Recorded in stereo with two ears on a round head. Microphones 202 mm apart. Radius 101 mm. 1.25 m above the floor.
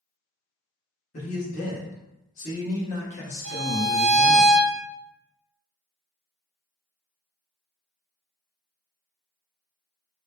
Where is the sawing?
No sawing in this recording.